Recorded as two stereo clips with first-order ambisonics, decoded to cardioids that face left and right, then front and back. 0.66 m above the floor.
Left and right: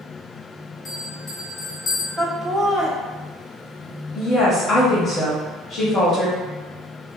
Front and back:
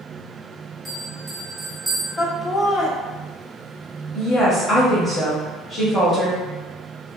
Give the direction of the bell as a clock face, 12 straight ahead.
8 o'clock.